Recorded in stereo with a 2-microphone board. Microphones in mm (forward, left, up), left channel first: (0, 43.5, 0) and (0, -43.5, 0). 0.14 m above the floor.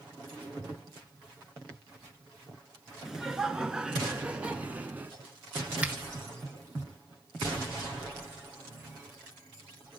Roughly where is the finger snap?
Centre.